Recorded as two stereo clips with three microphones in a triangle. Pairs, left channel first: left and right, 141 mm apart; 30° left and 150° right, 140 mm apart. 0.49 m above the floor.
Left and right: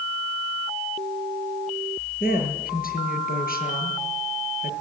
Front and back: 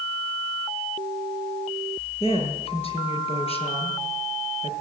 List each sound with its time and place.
2.2 s a woman speaking: 80° left, 7 m